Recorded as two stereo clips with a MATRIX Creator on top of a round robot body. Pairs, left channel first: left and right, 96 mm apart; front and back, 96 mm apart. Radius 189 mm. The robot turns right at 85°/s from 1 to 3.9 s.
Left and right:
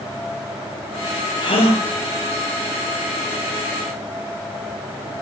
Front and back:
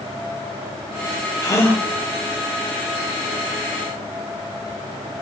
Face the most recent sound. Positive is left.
turn(degrees=-100)